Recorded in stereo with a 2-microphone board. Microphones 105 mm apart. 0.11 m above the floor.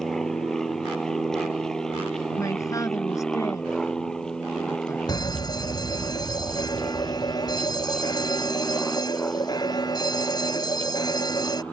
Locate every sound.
0.0 s an aircraft: 5° left (ahead or behind); by 11.7 s 10° left (ahead or behind)
2.4 s a man speaking: 30° left (ahead or behind)
5.1 s a fire alarm: 40° left (ahead or behind)